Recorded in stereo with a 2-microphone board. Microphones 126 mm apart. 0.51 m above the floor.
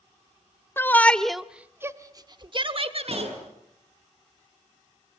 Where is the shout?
20° left (ahead or behind), 1.0 m; by 3.3 s 55° right (ahead or behind), 1.4 m.